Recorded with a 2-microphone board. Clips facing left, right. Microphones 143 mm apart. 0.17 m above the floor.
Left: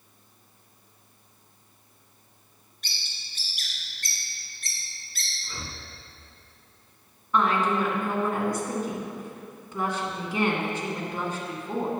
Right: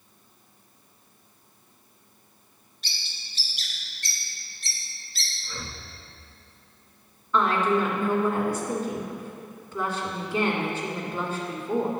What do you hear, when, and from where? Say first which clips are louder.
2.8 s a bird: even; 50° left (ahead or behind), 2 m
5.4 s breathing: right 1 dB; 15° left (ahead or behind), 0.7 m
7.3 s a woman speaking: right 1 dB; 15° left (ahead or behind), 1.8 m